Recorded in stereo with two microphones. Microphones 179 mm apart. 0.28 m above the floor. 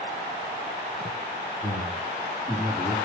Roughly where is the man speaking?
Left.